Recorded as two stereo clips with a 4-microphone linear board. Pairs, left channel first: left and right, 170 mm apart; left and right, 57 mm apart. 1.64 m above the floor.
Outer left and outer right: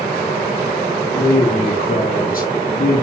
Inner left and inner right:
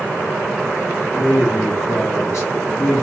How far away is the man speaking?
About 2.5 m.